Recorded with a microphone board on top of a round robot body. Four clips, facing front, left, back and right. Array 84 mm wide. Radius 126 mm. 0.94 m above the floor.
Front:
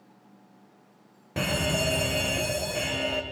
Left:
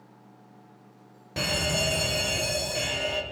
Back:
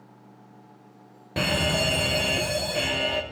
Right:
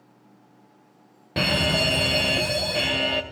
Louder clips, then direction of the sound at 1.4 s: Right 5 dB, back 2 dB; 105° right.